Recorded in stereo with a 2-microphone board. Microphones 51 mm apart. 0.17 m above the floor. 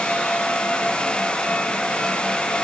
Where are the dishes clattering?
I don't hear dishes clattering.